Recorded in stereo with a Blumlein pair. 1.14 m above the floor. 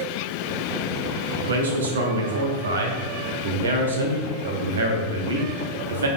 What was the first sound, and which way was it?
A man speaking, 65° right.